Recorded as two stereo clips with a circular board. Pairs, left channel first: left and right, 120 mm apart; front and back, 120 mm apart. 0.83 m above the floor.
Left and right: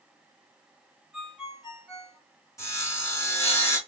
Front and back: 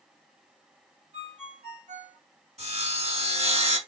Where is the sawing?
155° left, 2.5 m.